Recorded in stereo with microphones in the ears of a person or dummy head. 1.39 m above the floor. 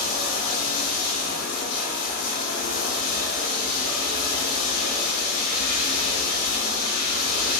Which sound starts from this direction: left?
Running water, at 0.0 s.